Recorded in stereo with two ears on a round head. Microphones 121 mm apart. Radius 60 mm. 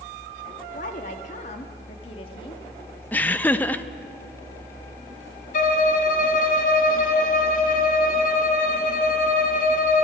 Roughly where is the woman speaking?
Left.